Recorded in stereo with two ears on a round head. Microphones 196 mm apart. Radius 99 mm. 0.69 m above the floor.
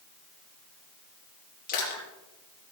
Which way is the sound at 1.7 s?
40° left (ahead or behind).